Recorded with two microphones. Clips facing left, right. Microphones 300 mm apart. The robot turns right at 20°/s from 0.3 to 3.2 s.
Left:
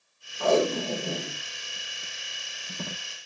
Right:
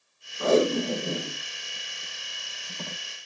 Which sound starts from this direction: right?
Tape being pulled, at 0.4 s.